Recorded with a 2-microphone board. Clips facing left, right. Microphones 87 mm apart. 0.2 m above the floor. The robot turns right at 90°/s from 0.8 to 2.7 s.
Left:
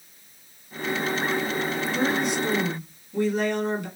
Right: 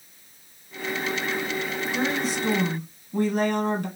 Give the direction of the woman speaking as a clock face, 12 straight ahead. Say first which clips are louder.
Left 1 dB; 5 o'clock.